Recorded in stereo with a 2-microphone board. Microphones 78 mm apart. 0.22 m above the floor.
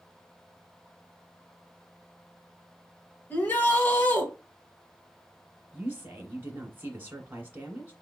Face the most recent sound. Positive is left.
turn(degrees=-25)  # may be behind; listen again after turning